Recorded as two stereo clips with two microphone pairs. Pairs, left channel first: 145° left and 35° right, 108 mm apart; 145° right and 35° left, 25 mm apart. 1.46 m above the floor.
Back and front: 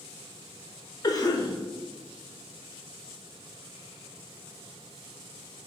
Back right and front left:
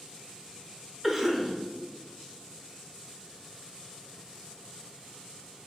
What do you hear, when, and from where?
1.0 s a cough: 110° left, 0.5 m